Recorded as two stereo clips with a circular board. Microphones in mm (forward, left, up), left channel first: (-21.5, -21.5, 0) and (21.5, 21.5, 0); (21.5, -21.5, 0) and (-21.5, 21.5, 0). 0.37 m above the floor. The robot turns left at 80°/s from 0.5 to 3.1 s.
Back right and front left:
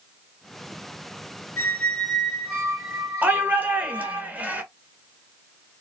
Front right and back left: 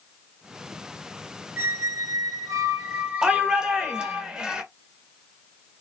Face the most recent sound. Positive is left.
turn(degrees=70)